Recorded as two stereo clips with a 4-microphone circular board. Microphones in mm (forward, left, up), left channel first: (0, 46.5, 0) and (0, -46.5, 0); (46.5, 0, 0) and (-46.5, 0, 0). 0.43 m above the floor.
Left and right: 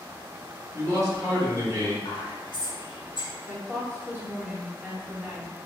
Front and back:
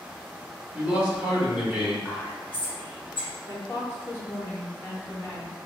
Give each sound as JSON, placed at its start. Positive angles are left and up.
{"t": 0.7, "sound": "a man speaking", "azimuth_deg": -120, "distance_m": 1.1}
{"t": 2.0, "sound": "whispering", "azimuth_deg": 80, "distance_m": 1.1}
{"t": 3.5, "sound": "a woman speaking", "azimuth_deg": -35, "distance_m": 0.9}